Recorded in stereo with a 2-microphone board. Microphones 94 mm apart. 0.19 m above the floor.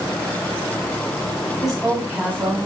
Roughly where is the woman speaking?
Centre.